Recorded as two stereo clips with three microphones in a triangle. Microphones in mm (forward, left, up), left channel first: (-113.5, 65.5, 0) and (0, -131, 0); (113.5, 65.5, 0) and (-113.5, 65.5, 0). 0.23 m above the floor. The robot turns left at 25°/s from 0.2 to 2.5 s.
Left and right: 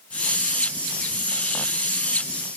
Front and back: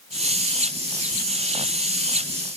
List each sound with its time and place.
Only background noise.